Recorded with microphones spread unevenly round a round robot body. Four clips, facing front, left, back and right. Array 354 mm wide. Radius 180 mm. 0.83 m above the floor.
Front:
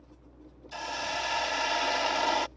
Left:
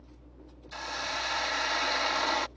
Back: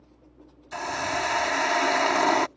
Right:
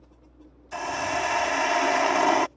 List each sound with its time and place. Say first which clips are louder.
0.7 s a hiss: right 9 dB, back 6 dB; 135° right